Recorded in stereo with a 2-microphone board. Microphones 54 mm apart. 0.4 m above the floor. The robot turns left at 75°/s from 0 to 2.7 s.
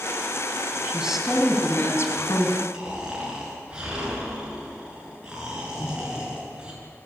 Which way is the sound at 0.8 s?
150° right.